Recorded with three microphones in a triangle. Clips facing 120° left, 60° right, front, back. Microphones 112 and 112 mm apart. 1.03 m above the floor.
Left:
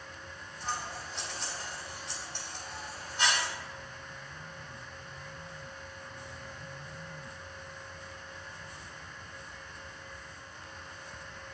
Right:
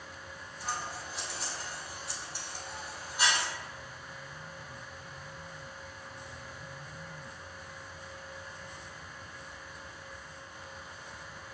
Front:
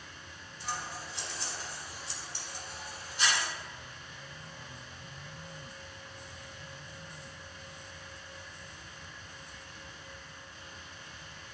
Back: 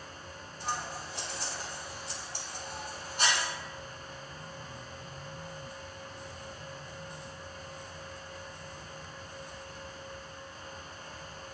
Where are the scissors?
140° right, 1.6 m.